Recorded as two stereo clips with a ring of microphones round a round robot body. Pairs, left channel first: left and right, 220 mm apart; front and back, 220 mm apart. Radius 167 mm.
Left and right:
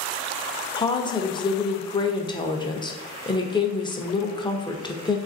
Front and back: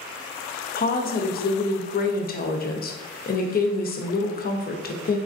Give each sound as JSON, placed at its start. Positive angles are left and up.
{"t": 0.8, "sound": "a woman speaking", "azimuth_deg": 25, "distance_m": 0.7}